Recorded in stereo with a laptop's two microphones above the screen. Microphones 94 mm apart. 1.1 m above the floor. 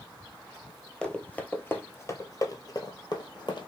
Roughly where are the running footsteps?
Centre.